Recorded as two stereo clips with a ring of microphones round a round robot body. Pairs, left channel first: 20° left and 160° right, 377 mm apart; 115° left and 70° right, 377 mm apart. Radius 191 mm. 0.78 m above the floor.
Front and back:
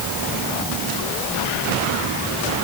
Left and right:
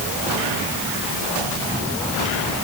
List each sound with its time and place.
Only background noise.